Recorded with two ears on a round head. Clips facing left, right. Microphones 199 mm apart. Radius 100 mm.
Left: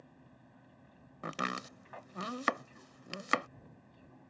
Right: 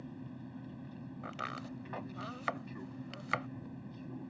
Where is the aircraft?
55° right (ahead or behind).